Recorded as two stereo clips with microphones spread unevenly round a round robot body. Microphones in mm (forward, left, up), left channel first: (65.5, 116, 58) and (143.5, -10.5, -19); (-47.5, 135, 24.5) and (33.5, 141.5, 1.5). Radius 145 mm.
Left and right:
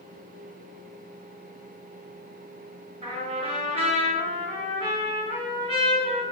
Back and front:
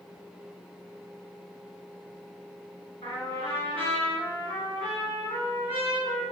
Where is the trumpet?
110° right, 2.5 m.